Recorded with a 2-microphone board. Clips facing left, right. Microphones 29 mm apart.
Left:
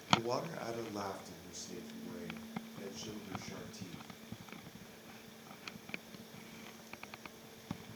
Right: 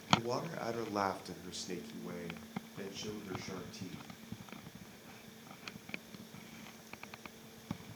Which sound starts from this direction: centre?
A man speaking, at 0.1 s.